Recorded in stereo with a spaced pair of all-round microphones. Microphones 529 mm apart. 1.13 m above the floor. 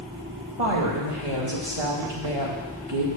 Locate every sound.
0.6 s a woman speaking: 75° right (ahead or behind), 2 m